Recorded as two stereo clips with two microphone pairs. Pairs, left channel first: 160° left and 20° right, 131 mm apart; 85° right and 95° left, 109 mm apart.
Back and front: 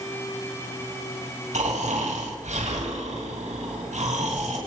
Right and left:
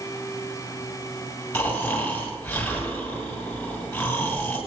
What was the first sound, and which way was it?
Snoring, 10° right.